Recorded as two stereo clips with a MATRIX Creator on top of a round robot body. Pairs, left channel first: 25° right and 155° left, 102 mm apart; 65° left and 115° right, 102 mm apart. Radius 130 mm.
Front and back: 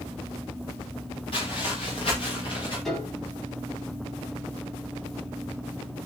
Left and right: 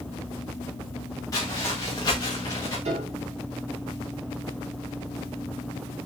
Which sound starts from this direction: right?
A piano, at 2.9 s.